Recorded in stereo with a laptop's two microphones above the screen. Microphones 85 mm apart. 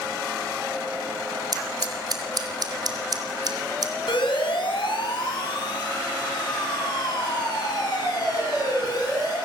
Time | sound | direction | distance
1.5 | scissors | 50° right (ahead or behind) | 4 m
4.1 | a siren | 75° left (ahead or behind) | 5.5 m